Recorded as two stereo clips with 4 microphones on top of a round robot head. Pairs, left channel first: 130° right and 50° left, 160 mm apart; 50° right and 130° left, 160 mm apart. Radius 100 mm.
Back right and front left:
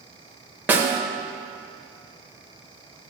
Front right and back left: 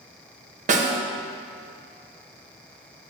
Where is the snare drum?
125° left, 0.8 m.